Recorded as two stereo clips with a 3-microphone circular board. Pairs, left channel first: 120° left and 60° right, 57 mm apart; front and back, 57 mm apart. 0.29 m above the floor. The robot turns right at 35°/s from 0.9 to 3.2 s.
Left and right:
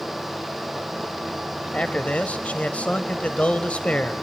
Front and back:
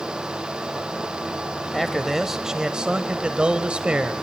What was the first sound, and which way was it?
A man speaking, 85° left.